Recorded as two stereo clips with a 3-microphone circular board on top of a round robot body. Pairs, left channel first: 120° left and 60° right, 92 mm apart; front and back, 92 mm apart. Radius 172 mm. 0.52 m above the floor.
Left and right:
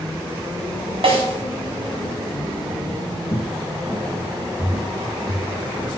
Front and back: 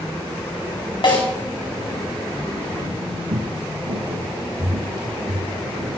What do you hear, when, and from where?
1.0 s a snare drum: 35° right, 4.5 m
3.3 s footsteps: straight behind, 1.3 m; by 5.9 s 125° right, 3 m